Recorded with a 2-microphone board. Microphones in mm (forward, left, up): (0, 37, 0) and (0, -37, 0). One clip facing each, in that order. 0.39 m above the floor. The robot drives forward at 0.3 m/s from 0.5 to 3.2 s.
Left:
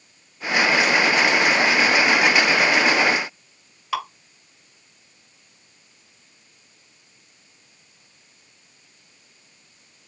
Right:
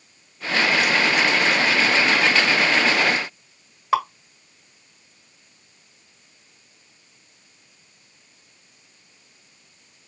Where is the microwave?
No microwave in this recording.